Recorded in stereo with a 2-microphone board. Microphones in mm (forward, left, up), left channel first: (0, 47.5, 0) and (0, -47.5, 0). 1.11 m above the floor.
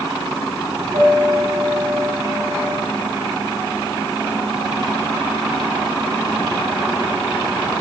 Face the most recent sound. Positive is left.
turn(degrees=-55)  # may be behind; listen again after turning